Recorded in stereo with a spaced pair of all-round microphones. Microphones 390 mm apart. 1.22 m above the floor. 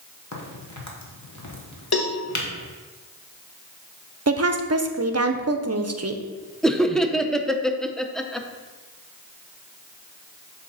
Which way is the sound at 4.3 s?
40° right (ahead or behind).